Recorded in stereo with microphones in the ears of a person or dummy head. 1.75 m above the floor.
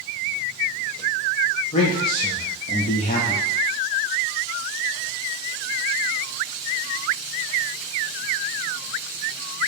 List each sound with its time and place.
1.7 s a man speaking: 35° left (ahead or behind), 0.5 m